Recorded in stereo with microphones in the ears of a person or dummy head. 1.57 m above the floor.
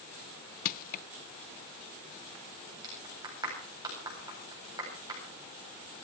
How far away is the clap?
About 8.5 m.